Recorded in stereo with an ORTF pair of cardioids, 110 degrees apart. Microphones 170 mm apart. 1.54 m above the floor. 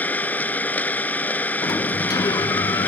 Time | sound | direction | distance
0.0 | an engine running | 10° left | ?
1.6 | a sliding door | 20° left | ?